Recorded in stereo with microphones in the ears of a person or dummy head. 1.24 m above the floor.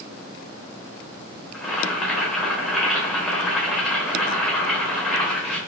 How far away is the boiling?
About 0.9 m.